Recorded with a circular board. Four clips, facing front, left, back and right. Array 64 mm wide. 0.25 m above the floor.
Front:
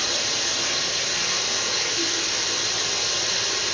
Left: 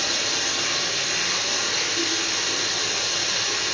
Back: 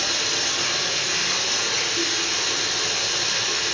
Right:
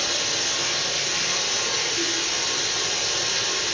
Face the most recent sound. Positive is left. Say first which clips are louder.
# left 1 dB, back 2 dB
turn(degrees=165)